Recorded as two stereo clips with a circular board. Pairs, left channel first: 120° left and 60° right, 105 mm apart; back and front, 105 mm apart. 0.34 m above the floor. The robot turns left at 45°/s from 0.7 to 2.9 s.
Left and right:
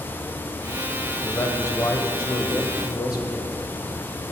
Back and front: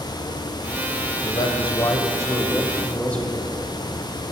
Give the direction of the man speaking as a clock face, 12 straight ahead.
6 o'clock.